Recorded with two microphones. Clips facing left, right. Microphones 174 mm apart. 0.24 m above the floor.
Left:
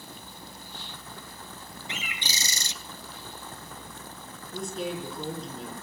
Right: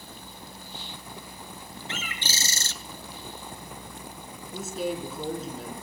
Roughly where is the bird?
Centre.